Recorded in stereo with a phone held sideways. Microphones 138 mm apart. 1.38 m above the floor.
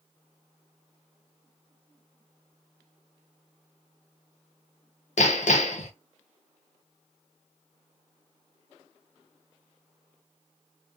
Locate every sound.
5.2 s hammering: 60° left (ahead or behind), 0.6 m